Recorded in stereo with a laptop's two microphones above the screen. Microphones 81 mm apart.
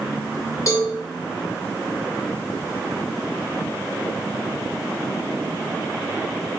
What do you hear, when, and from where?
0.7 s a cowbell: 40° left (ahead or behind), 1.3 m